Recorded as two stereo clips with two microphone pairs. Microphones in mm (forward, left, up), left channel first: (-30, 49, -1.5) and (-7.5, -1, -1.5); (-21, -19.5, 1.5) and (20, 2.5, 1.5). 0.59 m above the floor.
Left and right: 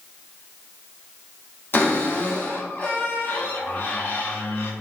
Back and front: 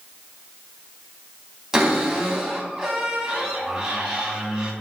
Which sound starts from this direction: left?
A cupboard door, at 1.7 s.